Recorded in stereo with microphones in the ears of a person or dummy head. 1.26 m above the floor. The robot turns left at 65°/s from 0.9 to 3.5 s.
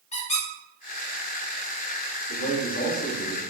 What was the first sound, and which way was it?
A squeak, 40° left (ahead or behind).